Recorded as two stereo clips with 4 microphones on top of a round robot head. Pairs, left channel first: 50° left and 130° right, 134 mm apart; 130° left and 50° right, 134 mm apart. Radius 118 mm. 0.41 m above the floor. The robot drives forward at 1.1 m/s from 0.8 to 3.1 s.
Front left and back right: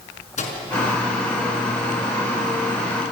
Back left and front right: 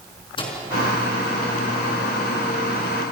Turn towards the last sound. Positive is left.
turn(degrees=105)